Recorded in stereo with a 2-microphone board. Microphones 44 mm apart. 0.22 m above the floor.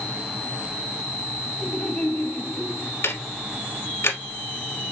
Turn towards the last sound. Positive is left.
turn(degrees=65)  # may be behind; listen again after turning